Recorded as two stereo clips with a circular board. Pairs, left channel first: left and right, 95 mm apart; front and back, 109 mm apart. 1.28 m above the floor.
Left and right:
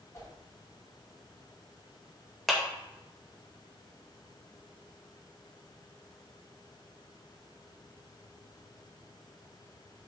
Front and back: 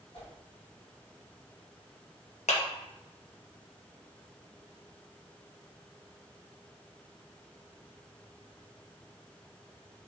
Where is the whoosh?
35° left, 4 m.